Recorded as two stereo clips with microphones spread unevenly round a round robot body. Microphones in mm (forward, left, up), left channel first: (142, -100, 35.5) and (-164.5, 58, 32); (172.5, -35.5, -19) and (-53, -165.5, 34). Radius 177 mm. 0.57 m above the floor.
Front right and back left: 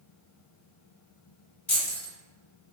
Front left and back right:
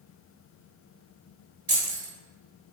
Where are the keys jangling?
95° right, 1.7 m.